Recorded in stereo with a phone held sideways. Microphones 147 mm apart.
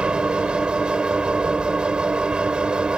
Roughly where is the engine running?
Centre.